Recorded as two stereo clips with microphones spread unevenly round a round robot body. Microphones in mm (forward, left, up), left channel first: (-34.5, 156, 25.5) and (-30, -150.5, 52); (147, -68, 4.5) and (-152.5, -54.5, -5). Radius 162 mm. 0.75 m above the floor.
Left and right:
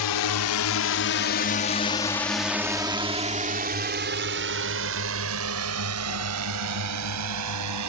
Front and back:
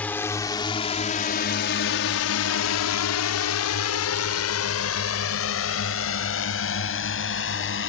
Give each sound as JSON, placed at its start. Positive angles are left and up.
{"t": 0.0, "sound": "a drone", "azimuth_deg": 80}